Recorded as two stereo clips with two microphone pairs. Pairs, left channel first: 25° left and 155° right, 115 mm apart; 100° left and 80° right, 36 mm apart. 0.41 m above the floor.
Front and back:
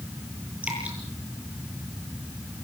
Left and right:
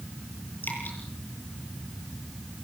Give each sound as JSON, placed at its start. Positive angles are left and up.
{"t": 0.6, "sound": "dripping", "azimuth_deg": 130, "distance_m": 8.5}